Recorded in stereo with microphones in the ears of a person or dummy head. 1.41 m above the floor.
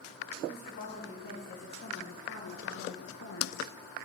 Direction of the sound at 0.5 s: 45° left (ahead or behind).